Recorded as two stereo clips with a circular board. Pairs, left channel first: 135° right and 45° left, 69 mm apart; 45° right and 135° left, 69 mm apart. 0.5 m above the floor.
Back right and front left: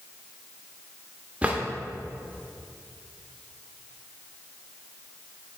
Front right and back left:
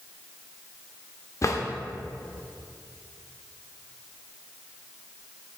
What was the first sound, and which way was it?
A drawer, 20° right.